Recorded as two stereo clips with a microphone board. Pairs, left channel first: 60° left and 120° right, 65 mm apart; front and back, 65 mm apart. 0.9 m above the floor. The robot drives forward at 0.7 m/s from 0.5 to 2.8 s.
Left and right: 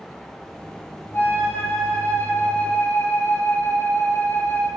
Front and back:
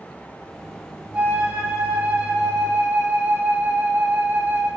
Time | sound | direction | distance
1.1 | a flute | 110° left | 8 m